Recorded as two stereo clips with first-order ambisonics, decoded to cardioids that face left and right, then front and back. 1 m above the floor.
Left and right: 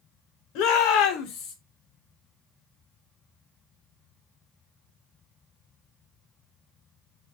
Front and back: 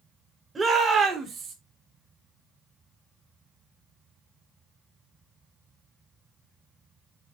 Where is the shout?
100° left, 3.5 m; by 1.6 s 125° left, 3 m.